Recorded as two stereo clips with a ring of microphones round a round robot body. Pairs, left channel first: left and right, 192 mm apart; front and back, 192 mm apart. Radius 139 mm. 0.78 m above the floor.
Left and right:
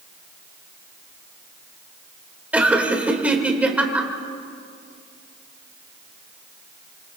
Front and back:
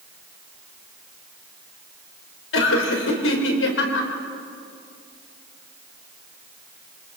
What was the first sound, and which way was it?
Laughter, 5° right.